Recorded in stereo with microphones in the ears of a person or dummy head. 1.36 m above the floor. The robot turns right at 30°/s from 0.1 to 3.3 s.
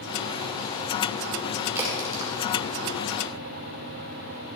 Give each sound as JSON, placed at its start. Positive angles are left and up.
{"t": 1.8, "sound": "a crack", "side_deg": -10, "distance_m": 2.5}